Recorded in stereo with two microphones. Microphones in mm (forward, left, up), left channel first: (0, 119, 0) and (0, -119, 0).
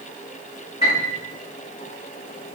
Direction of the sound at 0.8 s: 30° left (ahead or behind).